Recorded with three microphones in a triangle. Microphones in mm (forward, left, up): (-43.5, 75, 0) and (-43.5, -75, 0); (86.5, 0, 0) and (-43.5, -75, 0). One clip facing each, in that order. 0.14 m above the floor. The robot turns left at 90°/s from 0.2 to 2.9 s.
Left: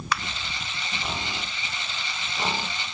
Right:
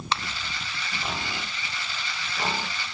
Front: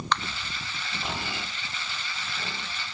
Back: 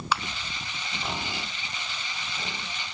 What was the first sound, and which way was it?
A finger snap, 75° right.